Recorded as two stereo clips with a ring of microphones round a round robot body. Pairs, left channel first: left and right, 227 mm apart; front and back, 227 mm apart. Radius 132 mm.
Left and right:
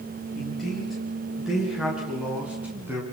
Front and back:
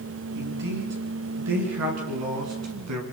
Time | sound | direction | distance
0.3 | a man speaking | straight behind | 9.5 m